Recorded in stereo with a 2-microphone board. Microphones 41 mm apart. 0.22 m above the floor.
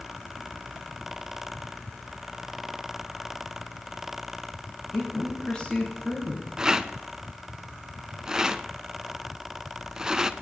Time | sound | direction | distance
4.9 | a woman speaking | 25° left (ahead or behind) | 3.5 m
6.6 | a rattle | 15° right (ahead or behind) | 0.6 m